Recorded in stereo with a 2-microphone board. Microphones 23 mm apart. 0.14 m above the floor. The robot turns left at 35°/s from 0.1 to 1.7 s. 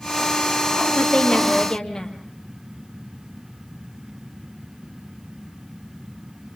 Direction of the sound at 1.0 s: 55° left (ahead or behind).